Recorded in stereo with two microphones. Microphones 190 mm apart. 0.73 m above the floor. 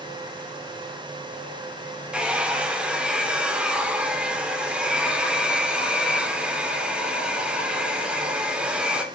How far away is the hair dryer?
About 2.5 m.